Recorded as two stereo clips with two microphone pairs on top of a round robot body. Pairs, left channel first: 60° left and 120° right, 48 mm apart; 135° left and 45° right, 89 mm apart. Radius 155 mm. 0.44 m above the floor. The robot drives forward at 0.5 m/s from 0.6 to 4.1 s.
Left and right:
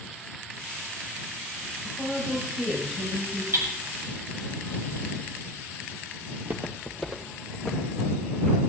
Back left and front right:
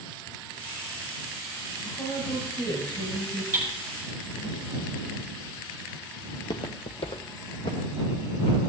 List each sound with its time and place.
1.8 s a woman speaking: 155° left, 3 m; by 3.4 s 160° left, 3.5 m
3.5 s hammering: 110° right, 3 m; by 3.7 s 115° right, 3 m
6.3 s footsteps: 155° right, 0.6 m; by 8.6 s 135° left, 3.5 m